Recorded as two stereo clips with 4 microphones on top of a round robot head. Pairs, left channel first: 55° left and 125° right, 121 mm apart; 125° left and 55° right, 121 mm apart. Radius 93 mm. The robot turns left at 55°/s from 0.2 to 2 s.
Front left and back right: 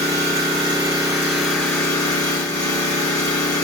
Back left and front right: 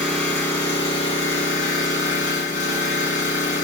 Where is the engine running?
145° right, 2.0 m; by 3.6 s 115° left, 2.0 m.